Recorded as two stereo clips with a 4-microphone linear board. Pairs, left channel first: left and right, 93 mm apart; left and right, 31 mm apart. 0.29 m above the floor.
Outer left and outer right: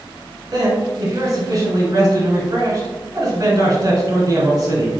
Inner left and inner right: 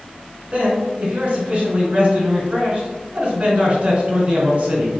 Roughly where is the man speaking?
Right.